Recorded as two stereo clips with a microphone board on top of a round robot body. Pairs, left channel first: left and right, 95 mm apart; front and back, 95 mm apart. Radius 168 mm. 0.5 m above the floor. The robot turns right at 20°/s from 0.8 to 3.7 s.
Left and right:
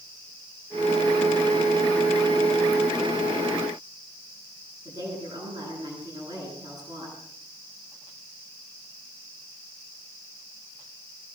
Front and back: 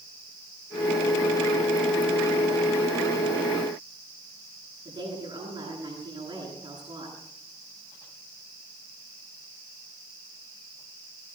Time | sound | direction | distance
4.8 | a woman speaking | 140° right | 10 m